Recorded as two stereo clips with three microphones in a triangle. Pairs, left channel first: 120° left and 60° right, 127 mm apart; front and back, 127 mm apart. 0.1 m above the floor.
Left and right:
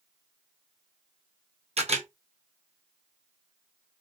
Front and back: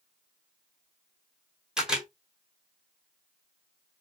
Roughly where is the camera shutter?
Right.